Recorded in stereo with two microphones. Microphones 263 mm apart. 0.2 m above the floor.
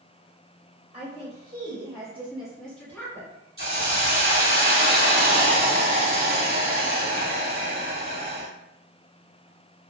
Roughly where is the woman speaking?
Right.